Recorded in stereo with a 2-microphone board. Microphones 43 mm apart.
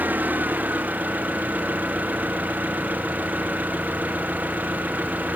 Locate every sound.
0.0 s an engine running: 40° right (ahead or behind)